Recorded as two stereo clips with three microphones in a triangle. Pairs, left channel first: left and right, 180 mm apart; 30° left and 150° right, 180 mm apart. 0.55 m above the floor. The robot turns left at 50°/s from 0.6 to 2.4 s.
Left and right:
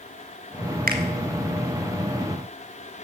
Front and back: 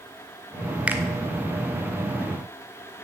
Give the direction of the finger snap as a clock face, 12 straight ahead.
2 o'clock.